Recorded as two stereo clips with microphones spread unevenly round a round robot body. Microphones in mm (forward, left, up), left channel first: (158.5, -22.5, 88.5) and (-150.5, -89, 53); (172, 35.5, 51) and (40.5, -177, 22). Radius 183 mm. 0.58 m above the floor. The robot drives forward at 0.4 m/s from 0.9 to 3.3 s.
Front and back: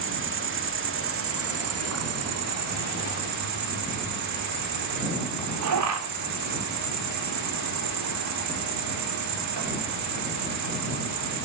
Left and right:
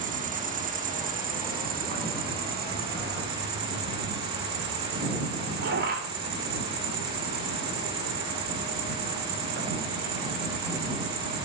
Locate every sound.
0.0 s an insect: 160° right, 1.8 m; by 11.5 s 165° right, 2.5 m